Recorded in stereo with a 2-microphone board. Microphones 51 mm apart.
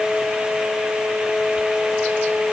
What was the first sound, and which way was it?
Only background noise.